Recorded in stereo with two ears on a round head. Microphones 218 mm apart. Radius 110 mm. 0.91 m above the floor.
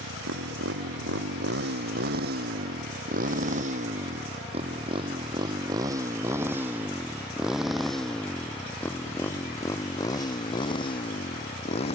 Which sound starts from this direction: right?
A motorcycle, at 0.0 s.